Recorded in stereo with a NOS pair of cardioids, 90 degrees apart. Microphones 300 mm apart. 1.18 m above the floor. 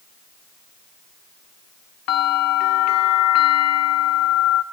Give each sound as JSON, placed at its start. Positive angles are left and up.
{"t": 2.1, "sound": "a bell", "azimuth_deg": 55, "distance_m": 0.8}